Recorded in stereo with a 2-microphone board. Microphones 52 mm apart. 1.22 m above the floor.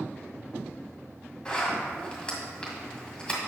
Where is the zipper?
25° left (ahead or behind), 1.8 m.